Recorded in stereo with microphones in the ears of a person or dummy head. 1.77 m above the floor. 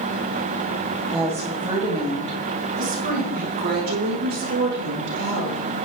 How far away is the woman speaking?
About 2.5 m.